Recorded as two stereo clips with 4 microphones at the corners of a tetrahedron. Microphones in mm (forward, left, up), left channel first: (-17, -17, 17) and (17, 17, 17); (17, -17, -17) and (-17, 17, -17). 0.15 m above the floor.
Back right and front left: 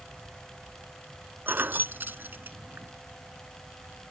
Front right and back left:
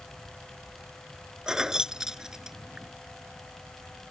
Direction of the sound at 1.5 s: 65° left.